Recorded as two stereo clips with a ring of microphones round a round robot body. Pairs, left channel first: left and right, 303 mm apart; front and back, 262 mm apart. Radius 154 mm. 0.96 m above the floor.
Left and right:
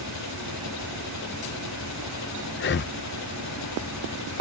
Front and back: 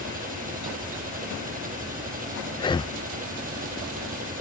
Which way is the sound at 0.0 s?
125° left.